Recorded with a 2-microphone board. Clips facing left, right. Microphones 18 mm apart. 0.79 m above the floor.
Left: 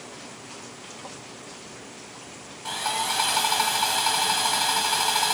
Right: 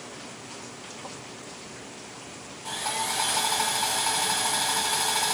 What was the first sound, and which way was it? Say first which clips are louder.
Sawing: left 3 dB; 50° left (ahead or behind).